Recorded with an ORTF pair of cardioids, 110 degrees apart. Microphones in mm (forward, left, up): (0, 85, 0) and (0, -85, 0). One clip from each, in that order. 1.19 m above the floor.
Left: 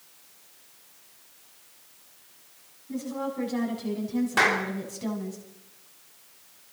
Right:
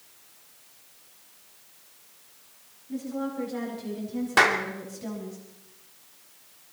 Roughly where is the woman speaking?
Ahead left.